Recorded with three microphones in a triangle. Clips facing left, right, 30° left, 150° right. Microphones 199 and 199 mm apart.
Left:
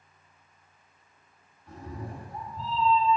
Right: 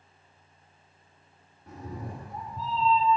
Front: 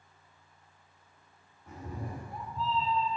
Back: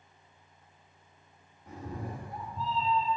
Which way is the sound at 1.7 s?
75° right.